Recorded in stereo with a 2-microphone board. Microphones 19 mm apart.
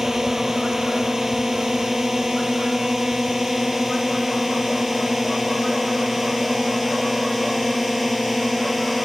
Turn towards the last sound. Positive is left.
turn(degrees=-5)  # may be behind; listen again after turning